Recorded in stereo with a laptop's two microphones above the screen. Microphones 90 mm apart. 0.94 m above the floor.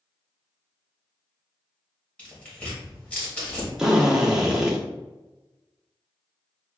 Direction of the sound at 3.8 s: 5° right (ahead or behind).